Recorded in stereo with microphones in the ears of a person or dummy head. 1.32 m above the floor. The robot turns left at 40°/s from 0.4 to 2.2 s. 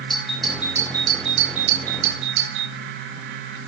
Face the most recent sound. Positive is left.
turn(degrees=-65)